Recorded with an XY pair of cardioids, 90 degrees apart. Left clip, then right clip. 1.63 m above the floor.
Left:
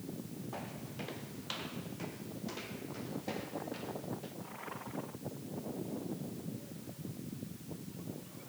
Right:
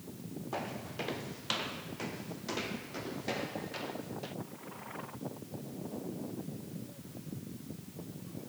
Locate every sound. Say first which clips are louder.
0.5 s footsteps: right 7 dB; 50° right; by 4.3 s 55° right